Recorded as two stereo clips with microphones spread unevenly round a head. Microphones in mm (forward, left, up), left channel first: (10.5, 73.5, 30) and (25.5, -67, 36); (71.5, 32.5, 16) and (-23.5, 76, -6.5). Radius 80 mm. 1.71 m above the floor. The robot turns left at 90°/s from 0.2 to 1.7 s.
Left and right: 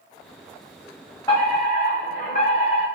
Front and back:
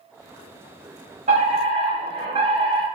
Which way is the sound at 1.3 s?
160° left.